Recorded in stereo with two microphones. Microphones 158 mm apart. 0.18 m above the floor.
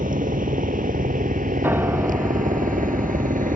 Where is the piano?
15° right (ahead or behind).